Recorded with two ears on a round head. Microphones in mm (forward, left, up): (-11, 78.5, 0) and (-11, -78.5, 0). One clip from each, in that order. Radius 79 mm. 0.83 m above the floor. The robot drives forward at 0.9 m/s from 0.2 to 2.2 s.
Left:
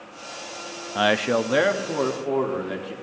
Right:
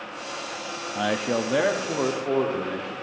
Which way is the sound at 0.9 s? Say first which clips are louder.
Left 5 dB; 55° left (ahead or behind).